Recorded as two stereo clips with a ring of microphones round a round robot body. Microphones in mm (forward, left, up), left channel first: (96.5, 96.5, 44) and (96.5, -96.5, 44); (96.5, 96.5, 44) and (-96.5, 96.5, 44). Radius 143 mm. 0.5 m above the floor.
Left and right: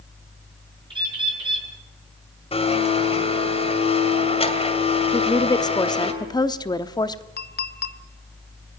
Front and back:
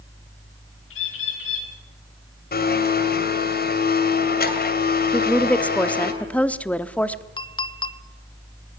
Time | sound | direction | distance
0.9 | a bird | 25° right | 7 m
2.5 | a blender | 30° left | 3 m
5.1 | a woman speaking | 70° left | 0.9 m
7.4 | a clink | 65° left | 1.0 m